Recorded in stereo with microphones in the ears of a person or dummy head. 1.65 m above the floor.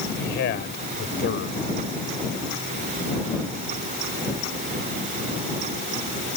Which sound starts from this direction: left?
A man speaking, at 0.2 s.